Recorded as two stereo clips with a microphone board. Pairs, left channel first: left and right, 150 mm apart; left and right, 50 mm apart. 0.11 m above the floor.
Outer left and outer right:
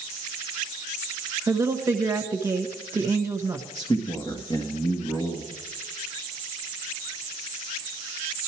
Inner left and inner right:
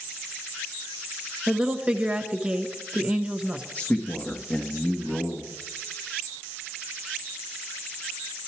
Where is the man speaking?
35° left (ahead or behind), 1.9 m.